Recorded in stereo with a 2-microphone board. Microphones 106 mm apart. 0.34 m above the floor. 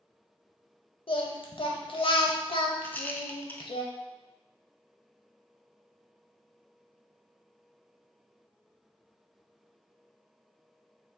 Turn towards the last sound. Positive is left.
turn(degrees=20)  # may be behind; listen again after turning